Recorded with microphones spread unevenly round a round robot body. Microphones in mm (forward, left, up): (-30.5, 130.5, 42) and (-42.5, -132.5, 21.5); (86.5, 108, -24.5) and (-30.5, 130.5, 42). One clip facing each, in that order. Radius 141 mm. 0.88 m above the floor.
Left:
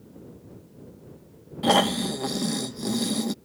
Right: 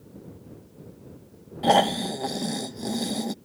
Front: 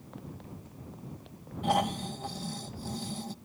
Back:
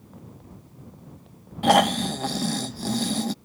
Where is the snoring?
165° left.